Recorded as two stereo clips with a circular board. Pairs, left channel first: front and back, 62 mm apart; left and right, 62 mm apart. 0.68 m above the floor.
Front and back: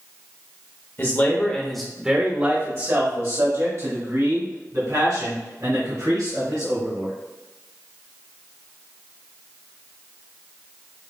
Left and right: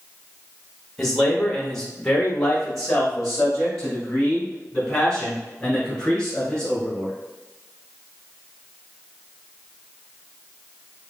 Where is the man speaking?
10° left, 0.9 m; by 7.1 s 175° left, 4 m.